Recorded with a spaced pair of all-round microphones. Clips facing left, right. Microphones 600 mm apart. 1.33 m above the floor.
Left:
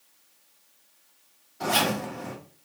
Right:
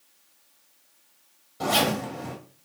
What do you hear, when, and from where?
1.6 s a zipper: 60° right (ahead or behind), 2 m